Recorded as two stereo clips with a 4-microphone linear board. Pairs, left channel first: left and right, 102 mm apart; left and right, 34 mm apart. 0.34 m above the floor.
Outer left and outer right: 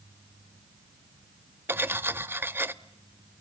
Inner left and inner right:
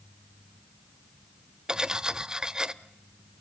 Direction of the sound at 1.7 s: 20° right (ahead or behind).